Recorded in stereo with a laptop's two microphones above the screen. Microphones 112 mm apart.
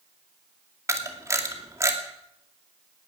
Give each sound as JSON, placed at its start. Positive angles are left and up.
{"t": 0.9, "sound": "a camera shutter", "side_deg": -25, "distance_m": 2.5}